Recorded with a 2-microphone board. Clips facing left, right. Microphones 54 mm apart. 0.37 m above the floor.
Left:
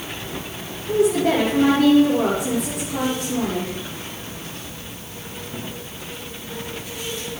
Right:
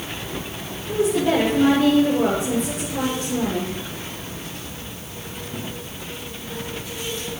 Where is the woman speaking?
70° left (ahead or behind), 8 m.